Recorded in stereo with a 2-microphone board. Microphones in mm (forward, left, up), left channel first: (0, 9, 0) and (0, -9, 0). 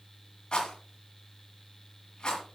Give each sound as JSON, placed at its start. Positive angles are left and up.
{"t": 0.5, "sound": "a rattle", "side_deg": 45, "distance_m": 1.9}